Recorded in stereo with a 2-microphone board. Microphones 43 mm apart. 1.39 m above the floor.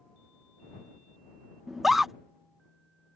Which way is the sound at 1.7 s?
5° right (ahead or behind).